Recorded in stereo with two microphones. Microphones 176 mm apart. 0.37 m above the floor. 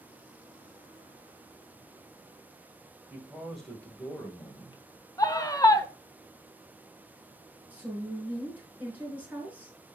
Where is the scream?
20° left (ahead or behind), 0.9 m.